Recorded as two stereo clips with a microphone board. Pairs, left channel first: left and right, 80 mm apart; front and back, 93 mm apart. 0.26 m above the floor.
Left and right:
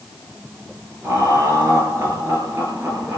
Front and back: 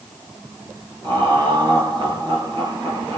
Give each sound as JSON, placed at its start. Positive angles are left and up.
{"t": 1.0, "sound": "laughter", "azimuth_deg": -145, "distance_m": 4.0}